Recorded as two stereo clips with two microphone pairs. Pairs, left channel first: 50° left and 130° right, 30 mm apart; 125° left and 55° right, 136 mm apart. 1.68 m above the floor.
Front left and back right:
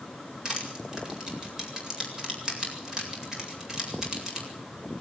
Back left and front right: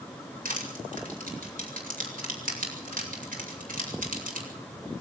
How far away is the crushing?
About 8 m.